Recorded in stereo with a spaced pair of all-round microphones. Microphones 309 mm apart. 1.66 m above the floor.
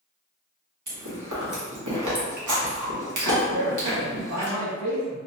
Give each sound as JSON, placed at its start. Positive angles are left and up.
{"t": 0.9, "sound": "chewing", "side_deg": -70, "distance_m": 1.0}
{"t": 3.5, "sound": "a man speaking", "side_deg": -60, "distance_m": 1.3}